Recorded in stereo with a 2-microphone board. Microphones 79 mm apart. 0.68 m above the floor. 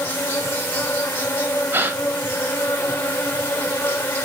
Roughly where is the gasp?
Right.